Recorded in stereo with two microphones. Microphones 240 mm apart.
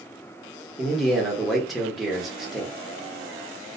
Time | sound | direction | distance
0.8 | a man speaking | centre (ahead or behind) | 0.9 m